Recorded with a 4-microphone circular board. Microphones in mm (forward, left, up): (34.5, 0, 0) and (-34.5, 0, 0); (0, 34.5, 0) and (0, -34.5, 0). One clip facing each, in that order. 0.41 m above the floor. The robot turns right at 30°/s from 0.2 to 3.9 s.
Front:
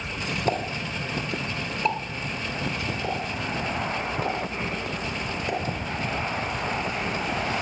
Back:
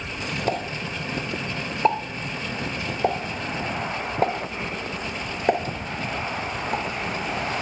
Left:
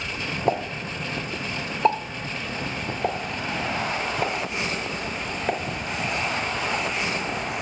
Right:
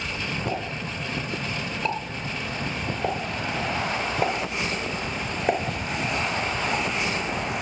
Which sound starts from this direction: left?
A pop, at 0.5 s.